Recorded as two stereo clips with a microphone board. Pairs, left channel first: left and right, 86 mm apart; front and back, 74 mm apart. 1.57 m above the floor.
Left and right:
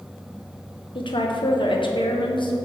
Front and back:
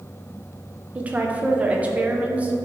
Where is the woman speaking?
110° left, 0.8 m.